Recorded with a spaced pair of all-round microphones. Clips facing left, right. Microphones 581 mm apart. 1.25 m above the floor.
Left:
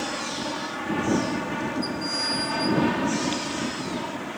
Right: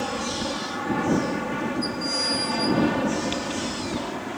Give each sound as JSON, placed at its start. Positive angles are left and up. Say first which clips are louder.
{"t": 0.0, "sound": "an aircraft", "louder": "right 3 dB", "side_deg": -65}